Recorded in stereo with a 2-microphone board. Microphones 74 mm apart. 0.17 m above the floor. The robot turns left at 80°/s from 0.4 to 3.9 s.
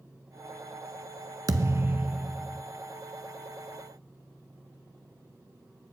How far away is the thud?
About 0.5 m.